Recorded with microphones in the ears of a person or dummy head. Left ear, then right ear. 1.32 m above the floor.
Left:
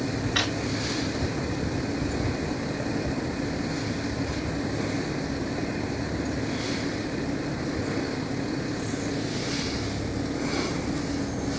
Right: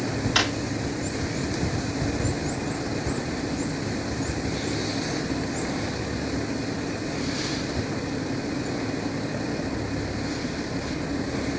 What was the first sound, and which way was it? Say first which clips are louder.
A drawer: right 3 dB; 10° right (ahead or behind).